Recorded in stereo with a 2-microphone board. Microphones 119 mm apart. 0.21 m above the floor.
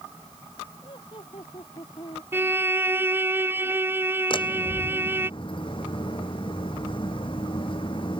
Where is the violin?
20° right (ahead or behind).